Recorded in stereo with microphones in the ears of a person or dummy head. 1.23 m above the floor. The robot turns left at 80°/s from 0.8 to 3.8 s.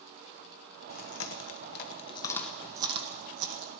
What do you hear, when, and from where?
0.9 s chewing: 50° left (ahead or behind), 1.4 m; by 3.7 s 75° right (ahead or behind), 1.4 m